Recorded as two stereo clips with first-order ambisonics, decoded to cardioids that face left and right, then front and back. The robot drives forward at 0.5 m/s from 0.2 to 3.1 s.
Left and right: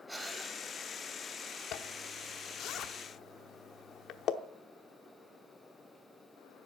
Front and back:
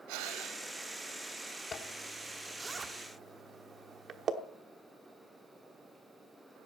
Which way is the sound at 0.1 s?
175° right.